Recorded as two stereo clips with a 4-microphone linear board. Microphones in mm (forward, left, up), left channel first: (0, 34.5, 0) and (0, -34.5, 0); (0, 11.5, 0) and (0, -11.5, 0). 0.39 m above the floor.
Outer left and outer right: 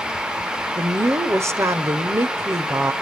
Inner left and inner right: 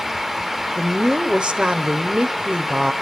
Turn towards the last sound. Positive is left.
turn(degrees=-45)  # may be behind; listen again after turning